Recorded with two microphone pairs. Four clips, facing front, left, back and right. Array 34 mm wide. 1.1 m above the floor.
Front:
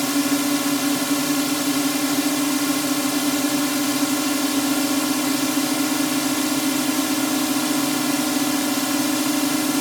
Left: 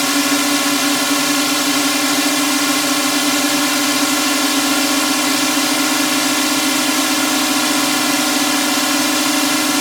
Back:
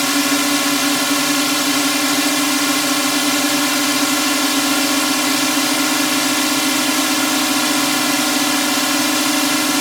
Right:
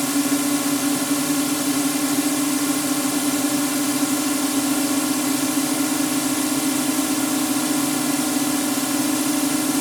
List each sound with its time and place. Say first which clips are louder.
0.0 s a drone: left 5 dB, back 4 dB; 135° left